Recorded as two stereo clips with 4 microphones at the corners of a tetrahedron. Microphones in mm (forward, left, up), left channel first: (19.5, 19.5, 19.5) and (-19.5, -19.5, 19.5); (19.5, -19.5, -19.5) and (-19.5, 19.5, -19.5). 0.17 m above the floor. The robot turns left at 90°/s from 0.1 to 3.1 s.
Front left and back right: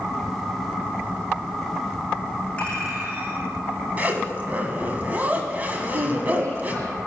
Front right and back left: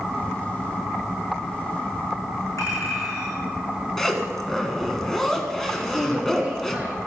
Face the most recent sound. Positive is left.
turn(degrees=-150)